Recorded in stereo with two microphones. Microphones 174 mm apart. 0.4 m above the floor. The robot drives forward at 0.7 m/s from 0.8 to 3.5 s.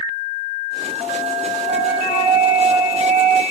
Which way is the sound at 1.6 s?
10° right (ahead or behind).